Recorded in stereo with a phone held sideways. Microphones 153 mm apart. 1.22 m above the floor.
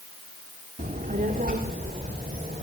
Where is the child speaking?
70° right (ahead or behind), 1.7 m.